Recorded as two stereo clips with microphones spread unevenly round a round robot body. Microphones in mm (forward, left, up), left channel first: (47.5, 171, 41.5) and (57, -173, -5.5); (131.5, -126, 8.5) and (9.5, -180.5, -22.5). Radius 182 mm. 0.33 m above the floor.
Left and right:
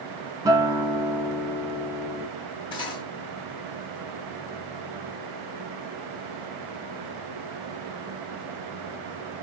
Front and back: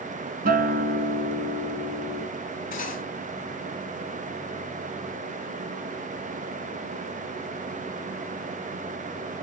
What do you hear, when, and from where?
0.5 s a guitar: 170° right, 0.6 m
2.7 s cutlery clinking: 10° left, 2 m